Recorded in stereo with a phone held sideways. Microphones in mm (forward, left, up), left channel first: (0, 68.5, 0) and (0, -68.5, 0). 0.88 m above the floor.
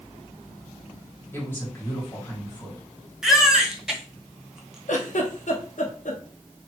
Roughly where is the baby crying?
Centre.